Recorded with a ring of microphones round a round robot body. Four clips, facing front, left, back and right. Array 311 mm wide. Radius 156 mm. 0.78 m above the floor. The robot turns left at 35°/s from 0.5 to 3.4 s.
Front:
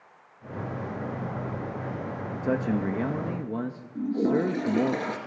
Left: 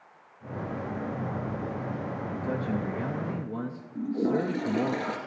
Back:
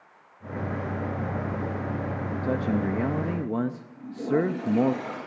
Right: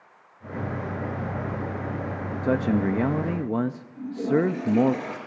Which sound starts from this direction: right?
A man speaking, at 2.4 s.